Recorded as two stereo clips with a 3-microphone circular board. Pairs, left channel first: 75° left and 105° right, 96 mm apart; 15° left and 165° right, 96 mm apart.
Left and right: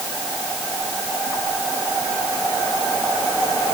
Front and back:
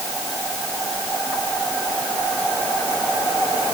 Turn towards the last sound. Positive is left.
No sound to turn to.